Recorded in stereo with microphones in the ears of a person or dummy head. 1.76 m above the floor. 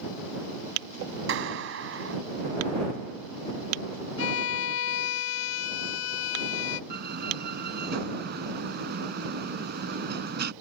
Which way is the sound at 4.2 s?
80° left.